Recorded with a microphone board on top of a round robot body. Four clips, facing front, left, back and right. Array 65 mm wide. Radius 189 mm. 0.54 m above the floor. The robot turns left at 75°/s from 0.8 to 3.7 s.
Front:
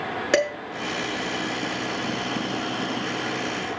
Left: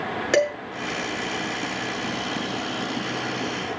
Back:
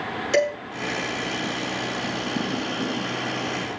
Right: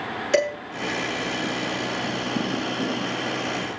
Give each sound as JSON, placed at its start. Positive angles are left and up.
{"t": 0.3, "sound": "dishes clattering", "azimuth_deg": 30, "distance_m": 7.5}